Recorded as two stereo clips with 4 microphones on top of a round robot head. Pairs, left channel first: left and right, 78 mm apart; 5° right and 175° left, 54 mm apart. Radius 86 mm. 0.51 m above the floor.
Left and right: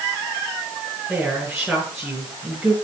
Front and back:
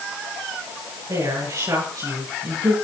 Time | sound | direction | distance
1.1 | a woman speaking | 175° right | 8 m